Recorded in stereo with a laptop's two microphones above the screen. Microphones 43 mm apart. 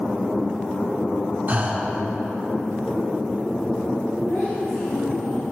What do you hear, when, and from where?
1.5 s breathing: 45° right (ahead or behind), 0.9 m
4.3 s a child speaking: 75° left (ahead or behind), 3 m